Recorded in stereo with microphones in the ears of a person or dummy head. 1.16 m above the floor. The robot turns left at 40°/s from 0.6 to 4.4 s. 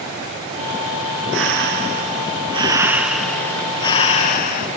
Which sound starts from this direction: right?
Breathing, at 1.3 s.